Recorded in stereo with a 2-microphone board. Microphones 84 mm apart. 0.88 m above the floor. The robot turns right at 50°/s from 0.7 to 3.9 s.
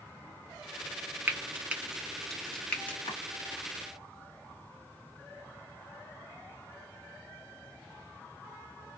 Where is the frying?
25° right (ahead or behind), 0.6 m; by 3.0 s 20° left (ahead or behind), 0.6 m.